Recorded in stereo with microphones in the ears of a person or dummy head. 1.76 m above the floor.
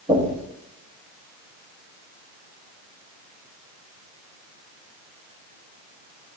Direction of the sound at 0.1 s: 35° right (ahead or behind).